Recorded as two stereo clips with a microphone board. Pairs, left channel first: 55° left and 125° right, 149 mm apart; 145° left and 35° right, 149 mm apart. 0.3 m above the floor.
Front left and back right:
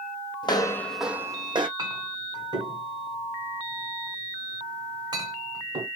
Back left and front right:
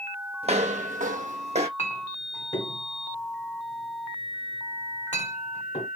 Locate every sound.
0.4 s footsteps: 5° left, 0.6 m; by 1.7 s 75° right, 0.7 m
1.8 s a clink: straight behind, 1.5 m